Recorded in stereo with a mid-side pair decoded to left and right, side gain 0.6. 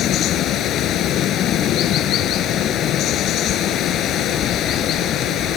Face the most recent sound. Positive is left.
turn(degrees=55)